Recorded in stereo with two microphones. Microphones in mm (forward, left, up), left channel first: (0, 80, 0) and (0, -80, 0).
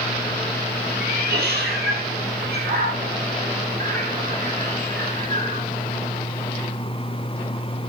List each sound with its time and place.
1.0 s a cat meowing: 75° right (ahead or behind), 2.5 m; by 5.6 s 50° right (ahead or behind), 4.5 m